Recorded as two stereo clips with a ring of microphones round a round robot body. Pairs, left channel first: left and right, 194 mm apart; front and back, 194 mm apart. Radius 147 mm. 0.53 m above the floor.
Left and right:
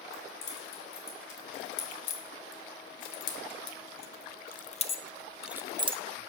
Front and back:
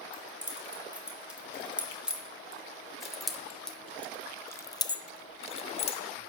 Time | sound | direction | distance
0.1 | keys jangling | 95° left | 3 m